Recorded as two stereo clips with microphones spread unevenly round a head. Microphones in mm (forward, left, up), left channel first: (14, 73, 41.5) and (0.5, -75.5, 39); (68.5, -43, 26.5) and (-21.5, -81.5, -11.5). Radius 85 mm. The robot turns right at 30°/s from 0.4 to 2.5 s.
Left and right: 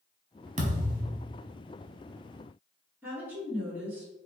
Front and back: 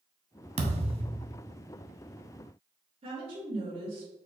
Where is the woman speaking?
175° right, 1.7 m.